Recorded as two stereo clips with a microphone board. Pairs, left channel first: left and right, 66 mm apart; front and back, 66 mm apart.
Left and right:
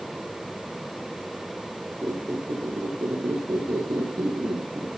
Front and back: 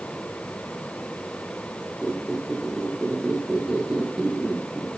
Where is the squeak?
100° right, 5.5 m.